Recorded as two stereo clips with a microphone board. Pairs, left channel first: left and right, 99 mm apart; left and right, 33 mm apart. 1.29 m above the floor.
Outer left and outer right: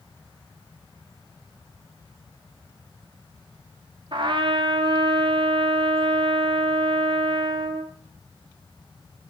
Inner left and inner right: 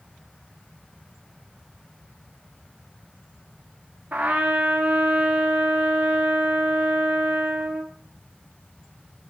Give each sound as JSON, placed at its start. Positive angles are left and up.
{"t": 4.1, "sound": "a trumpet", "side_deg": -55, "distance_m": 0.8}